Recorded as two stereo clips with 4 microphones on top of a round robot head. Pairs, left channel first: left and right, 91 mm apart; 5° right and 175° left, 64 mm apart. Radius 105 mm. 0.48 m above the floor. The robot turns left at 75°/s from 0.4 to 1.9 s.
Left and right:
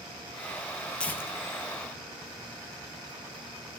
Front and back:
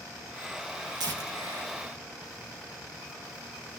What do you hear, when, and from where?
1.0 s tearing paper: 170° left, 2 m; by 3.8 s 100° left, 2 m